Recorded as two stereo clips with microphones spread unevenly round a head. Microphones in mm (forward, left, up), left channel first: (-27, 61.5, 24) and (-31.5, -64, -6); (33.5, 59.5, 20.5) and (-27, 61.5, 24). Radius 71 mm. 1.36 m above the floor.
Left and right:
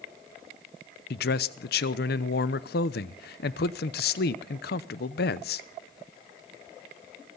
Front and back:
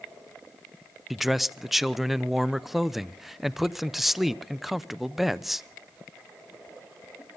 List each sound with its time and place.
1.1 s a man speaking: 90° left, 0.9 m